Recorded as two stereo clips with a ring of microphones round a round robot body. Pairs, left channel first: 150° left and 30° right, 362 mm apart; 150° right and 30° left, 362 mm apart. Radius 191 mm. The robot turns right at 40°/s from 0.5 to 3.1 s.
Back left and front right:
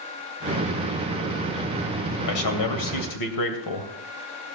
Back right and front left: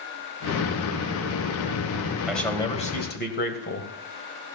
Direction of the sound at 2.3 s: 120° left.